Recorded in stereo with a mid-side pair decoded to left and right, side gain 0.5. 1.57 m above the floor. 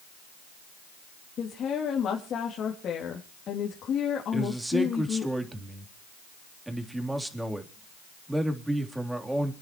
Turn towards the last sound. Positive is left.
turn(degrees=-10)